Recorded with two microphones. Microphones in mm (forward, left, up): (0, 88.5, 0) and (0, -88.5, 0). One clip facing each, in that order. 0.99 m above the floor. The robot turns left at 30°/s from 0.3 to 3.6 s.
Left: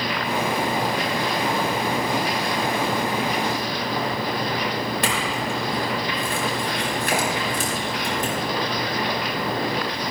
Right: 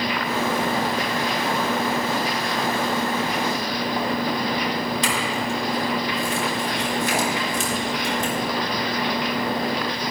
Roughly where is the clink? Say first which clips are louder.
Even; left.